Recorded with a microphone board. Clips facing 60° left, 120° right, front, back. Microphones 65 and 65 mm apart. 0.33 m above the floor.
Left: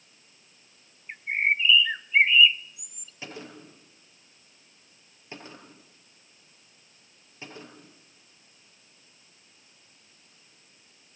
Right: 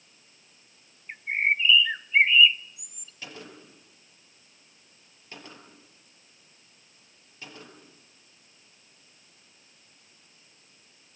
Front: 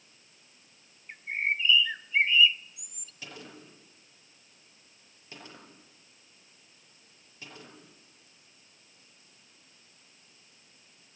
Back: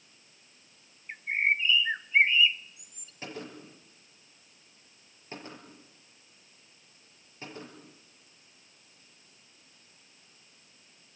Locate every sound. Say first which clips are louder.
1.1 s a bird: even, back 3 dB; 150° left, 0.6 m
3.2 s a gunshot: left 2 dB, back 5 dB; 130° left, 6.5 m